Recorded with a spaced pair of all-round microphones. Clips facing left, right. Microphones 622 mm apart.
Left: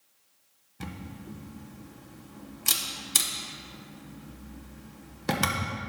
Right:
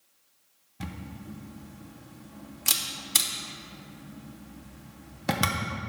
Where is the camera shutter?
10° right (ahead or behind), 0.6 m.